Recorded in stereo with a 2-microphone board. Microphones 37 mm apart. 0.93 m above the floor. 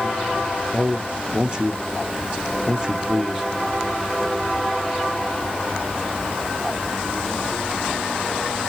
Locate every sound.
0.7 s a man speaking: 25° right (ahead or behind), 0.7 m